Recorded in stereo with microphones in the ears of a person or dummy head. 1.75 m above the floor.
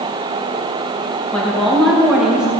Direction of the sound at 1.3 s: 10° left (ahead or behind).